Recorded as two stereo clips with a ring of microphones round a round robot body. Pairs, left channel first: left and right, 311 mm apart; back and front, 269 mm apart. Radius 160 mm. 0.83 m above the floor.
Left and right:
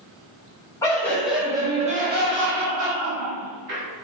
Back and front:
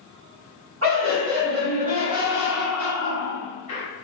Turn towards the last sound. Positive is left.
turn(degrees=-115)